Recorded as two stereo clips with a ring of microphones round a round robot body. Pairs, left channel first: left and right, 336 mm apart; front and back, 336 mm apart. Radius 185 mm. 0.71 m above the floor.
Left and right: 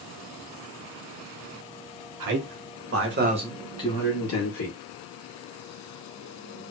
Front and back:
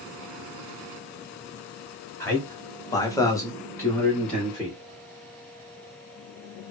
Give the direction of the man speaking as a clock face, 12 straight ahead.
3 o'clock.